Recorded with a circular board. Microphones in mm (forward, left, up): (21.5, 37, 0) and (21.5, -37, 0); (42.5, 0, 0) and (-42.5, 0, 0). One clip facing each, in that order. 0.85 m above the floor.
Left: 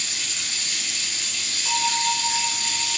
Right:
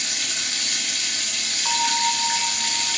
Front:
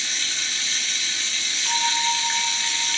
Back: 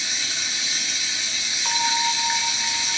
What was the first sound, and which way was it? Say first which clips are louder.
Running water: right 3 dB, even; 105° right.